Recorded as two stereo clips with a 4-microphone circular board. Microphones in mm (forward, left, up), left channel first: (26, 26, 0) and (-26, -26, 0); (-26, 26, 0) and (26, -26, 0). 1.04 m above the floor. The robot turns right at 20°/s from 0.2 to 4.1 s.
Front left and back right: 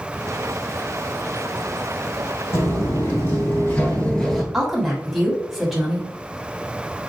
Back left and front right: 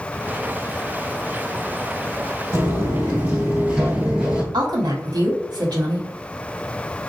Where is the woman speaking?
45° right, 1.2 m.